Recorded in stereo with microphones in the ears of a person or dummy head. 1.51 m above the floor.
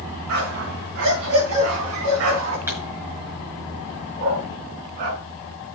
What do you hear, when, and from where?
0.3 s a dog barking: 60° right (ahead or behind), 4.5 m; by 2.6 s 70° right (ahead or behind), 3.5 m
2.7 s a pop: 15° right (ahead or behind), 5 m
4.2 s a dog barking: 50° right (ahead or behind), 4 m